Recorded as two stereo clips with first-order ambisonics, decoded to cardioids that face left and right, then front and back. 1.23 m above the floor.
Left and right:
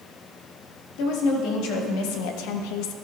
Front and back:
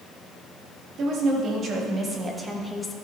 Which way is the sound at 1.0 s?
120° left.